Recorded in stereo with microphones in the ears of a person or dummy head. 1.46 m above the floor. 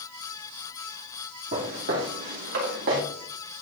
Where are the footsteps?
50° right (ahead or behind), 2.5 m; by 3.0 s 55° right (ahead or behind), 3 m.